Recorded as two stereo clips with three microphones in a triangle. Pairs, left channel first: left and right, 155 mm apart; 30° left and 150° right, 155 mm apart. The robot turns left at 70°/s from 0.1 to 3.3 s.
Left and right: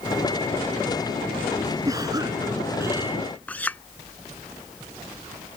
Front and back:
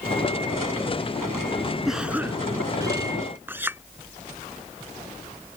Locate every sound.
1.9 s a cough: 60° right; by 3.2 s 155° right
3.5 s a clink: 155° left